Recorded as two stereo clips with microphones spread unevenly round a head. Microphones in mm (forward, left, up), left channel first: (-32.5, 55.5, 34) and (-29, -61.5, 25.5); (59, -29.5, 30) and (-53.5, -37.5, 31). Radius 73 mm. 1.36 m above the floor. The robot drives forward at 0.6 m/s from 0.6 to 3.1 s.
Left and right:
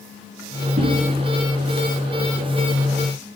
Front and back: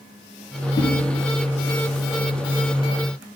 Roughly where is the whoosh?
Ahead right.